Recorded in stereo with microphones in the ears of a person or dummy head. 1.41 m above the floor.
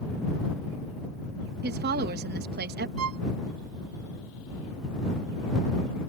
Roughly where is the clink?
No clink in this recording.